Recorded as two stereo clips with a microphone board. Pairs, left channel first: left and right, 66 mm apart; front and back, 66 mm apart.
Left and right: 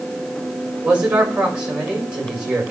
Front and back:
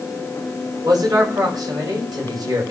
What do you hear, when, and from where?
0.8 s a man speaking: 160° right, 5 m